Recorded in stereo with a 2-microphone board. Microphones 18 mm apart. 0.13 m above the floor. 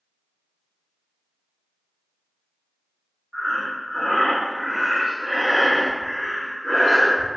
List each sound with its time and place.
3.3 s breathing: 10° left (ahead or behind), 1.4 m